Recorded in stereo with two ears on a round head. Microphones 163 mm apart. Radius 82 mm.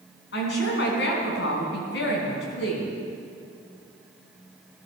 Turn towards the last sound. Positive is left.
turn(degrees=70)  # may be behind; listen again after turning